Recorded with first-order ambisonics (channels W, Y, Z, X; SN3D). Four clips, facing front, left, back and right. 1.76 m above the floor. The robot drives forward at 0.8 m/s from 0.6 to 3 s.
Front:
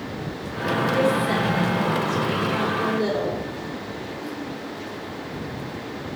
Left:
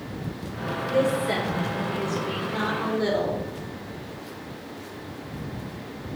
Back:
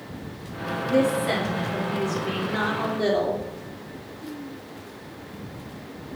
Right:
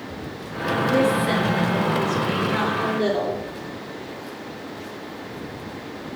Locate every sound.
0.9 s a woman speaking: 140° right, 3.5 m; by 3.4 s 150° right, 5 m